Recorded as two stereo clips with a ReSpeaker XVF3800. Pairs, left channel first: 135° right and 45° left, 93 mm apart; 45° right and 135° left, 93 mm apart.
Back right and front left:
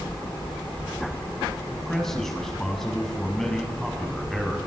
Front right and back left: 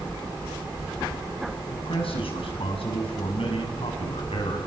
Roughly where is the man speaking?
Ahead right.